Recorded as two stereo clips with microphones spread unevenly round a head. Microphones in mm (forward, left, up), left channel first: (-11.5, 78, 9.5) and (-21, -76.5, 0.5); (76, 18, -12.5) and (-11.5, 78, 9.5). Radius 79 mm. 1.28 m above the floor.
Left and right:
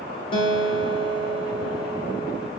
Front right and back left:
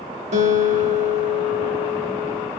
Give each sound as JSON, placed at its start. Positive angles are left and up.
{"t": 0.3, "sound": "a guitar", "azimuth_deg": 145, "distance_m": 1.6}